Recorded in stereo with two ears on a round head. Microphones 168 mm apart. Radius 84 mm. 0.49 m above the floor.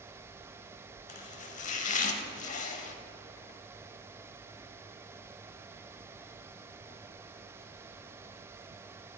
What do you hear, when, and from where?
1.1 s chopping: 40° left (ahead or behind), 0.7 m